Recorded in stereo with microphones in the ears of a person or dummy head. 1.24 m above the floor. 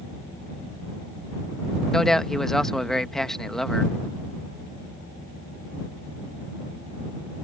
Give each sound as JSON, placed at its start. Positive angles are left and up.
{"t": 1.9, "sound": "a man speaking", "side_deg": 5}